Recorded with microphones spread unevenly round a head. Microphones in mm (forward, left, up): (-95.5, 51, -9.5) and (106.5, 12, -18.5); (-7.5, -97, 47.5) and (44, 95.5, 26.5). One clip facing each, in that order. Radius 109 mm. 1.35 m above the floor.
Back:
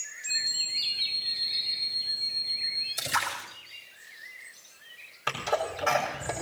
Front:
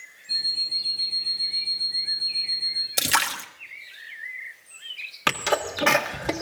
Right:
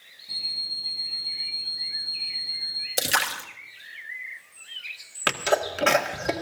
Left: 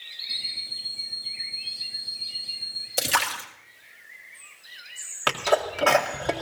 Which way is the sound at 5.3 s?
35° right.